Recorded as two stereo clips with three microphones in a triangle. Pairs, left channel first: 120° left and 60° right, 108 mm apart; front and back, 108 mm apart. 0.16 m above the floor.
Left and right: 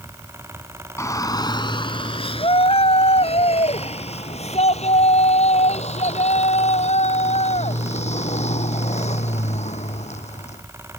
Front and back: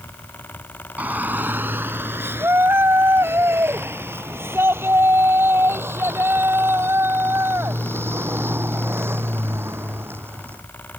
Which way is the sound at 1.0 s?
125° left.